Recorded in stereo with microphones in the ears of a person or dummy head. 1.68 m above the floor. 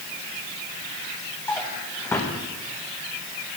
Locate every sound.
1.5 s a drawer: 10° left (ahead or behind), 1.0 m